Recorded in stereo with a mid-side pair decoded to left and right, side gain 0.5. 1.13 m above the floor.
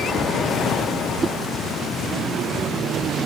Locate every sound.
1.2 s a whoosh: 30° right